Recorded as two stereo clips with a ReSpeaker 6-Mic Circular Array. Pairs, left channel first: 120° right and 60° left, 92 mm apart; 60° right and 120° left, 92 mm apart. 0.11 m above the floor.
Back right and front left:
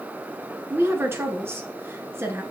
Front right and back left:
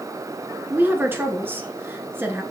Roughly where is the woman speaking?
Left.